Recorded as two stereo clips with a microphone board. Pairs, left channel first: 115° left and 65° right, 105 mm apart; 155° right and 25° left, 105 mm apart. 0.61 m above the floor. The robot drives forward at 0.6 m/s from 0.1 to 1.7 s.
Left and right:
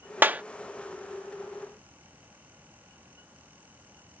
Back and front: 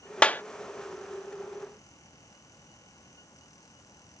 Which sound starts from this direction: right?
A clap, at 0.2 s.